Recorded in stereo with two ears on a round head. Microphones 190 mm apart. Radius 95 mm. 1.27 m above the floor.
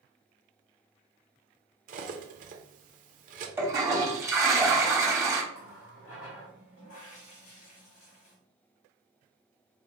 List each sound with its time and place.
1.9 s cutlery clinking: 40° right (ahead or behind), 0.7 m
3.6 s a toilet flushing: 15° right (ahead or behind), 0.9 m
5.5 s a running tap: 75° left (ahead or behind), 1.7 m